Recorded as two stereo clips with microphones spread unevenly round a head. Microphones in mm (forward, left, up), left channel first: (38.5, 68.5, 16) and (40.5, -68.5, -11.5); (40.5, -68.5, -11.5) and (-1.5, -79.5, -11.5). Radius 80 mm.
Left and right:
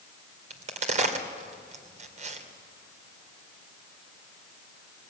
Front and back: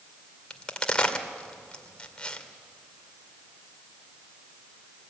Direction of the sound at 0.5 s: 55° right.